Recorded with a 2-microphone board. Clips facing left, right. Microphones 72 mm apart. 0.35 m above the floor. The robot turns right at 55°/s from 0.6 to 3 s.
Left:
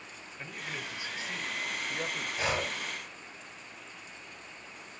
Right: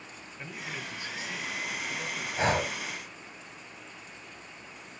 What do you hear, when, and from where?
0.4 s a man speaking: 5° left, 1.9 m; by 2.3 s 95° left, 1.9 m
2.4 s breathing: 30° right (ahead or behind), 2.5 m; by 2.8 s 50° right (ahead or behind), 2.5 m